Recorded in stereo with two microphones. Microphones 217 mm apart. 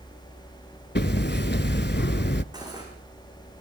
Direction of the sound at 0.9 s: 50° left (ahead or behind).